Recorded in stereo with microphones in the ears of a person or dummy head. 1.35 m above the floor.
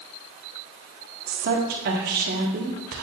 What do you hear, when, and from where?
1.3 s a woman speaking: 60° right (ahead or behind), 1.2 m